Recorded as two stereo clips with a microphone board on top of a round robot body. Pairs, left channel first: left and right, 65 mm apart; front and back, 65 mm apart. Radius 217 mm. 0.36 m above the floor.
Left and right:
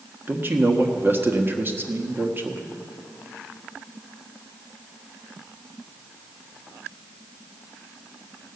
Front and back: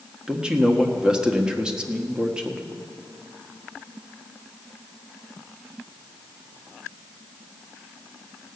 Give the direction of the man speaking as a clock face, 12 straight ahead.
4 o'clock.